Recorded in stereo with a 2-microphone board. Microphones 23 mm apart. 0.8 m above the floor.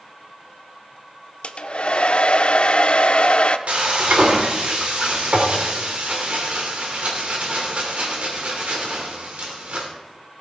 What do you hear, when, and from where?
1.4 s a hair dryer: 55° left (ahead or behind), 0.7 m
3.7 s frying: 70° right (ahead or behind), 3 m